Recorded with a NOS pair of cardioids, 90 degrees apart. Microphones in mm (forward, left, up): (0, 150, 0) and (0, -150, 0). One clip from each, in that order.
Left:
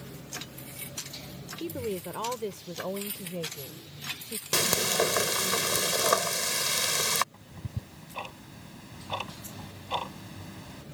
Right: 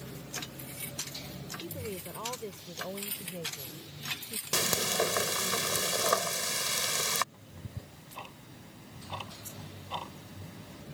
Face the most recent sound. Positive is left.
turn(degrees=45)